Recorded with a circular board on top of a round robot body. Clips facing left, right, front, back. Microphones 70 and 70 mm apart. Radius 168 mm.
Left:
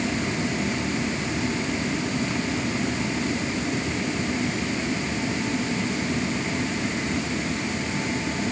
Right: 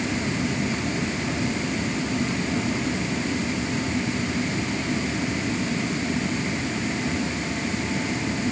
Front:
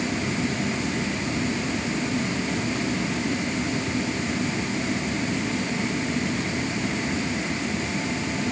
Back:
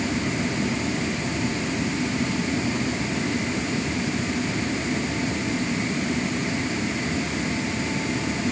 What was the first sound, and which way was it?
Only background noise.